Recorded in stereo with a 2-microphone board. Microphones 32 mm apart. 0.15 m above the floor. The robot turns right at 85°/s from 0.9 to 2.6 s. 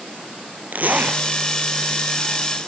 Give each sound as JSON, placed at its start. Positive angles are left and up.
{"t": 0.7, "sound": "a zipper", "side_deg": -60, "distance_m": 1.9}